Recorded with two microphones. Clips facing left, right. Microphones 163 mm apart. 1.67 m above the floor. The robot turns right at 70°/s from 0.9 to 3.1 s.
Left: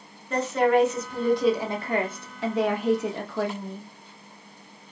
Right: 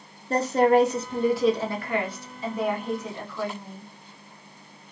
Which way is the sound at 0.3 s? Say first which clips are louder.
Right 2 dB; 35° right.